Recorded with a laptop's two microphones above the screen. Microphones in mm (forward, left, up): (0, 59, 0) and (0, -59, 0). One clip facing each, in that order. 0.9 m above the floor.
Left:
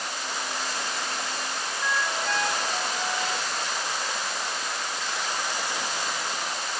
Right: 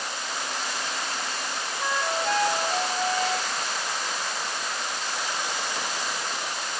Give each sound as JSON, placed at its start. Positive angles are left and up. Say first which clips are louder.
{"t": 1.8, "sound": "a flute", "louder": "right 2 dB", "side_deg": -35}